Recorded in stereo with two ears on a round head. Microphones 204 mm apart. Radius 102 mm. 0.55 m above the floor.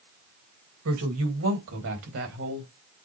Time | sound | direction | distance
0.8 | a woman speaking | 70° right (ahead or behind) | 3 m